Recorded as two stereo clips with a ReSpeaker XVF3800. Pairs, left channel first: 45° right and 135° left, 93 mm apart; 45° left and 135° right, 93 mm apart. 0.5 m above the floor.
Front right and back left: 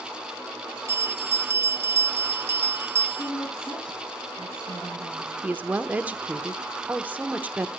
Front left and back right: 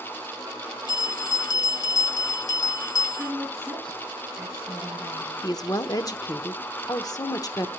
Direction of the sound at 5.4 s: 70° left.